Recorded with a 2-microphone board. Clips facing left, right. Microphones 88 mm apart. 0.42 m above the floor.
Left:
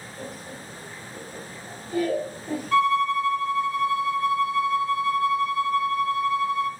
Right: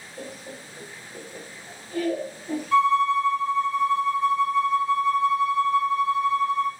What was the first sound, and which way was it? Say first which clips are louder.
Laughter: right 1 dB; 45° right (ahead or behind).